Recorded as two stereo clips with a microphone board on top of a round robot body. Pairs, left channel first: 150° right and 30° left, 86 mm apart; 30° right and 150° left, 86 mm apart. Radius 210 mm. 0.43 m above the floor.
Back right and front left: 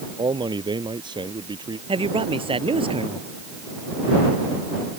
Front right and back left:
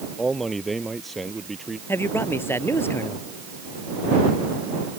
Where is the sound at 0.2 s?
60° left.